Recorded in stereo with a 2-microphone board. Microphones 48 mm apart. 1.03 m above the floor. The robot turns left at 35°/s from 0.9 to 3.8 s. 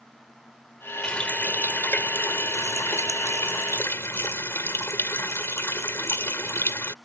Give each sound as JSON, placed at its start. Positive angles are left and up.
{"t": 1.0, "sound": "a running tap", "azimuth_deg": 160}